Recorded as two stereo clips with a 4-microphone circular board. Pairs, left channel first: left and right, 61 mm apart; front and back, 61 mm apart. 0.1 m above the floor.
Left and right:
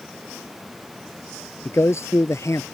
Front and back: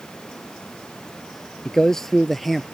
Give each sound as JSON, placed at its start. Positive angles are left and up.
{"t": 1.6, "sound": "a man speaking", "azimuth_deg": 75}